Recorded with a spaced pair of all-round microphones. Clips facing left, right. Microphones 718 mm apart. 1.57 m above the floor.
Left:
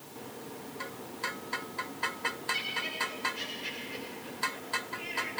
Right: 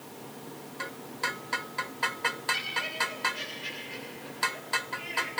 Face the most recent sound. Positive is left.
turn(degrees=-80)